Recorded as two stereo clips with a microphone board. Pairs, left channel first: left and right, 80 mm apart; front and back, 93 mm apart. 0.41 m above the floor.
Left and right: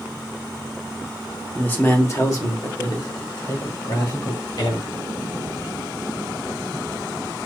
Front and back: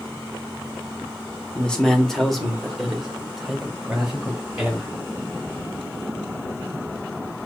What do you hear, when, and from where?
1.6 s a man speaking: 60° left, 0.8 m; by 4.9 s 100° left, 2 m